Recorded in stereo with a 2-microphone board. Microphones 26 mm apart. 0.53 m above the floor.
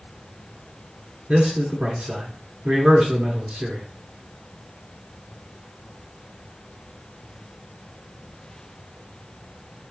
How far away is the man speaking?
About 1.1 m.